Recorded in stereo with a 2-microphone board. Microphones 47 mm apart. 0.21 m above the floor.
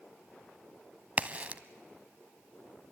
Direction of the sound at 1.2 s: 30° right (ahead or behind).